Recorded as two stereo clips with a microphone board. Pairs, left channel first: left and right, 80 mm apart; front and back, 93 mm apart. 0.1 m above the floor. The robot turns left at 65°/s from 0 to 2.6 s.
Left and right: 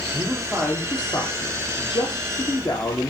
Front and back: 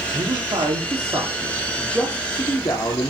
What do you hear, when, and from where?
0.1 s a man speaking: 165° right, 3.5 m; by 3.1 s 35° left, 3.5 m